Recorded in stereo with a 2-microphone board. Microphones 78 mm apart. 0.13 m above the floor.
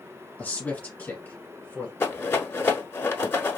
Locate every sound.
0.4 s a man speaking: 20° left (ahead or behind), 1.7 m
2.0 s a rattle: 35° left (ahead or behind), 0.8 m